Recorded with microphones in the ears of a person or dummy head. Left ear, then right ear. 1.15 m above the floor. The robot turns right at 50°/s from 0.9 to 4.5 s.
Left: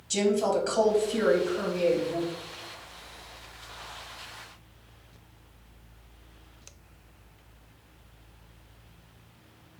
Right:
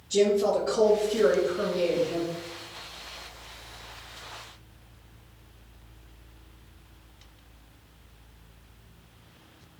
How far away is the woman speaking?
About 1.5 m.